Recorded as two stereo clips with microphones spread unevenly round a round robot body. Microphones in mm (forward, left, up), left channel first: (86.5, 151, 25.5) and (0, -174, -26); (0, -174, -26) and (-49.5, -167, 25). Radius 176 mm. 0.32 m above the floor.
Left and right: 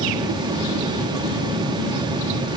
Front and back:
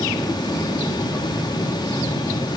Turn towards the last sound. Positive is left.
No sound to turn to.